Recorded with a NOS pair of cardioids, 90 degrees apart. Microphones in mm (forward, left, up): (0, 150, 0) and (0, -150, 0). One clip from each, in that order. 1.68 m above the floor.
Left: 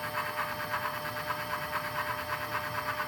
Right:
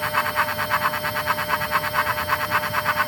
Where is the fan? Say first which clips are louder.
Right 12 dB; 60° right, 0.8 m.